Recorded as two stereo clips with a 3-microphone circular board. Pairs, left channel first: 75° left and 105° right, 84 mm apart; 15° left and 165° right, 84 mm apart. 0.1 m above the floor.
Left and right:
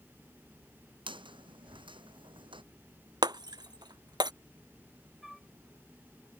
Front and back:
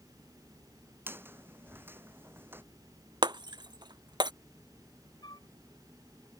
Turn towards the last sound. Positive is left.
turn(degrees=-20)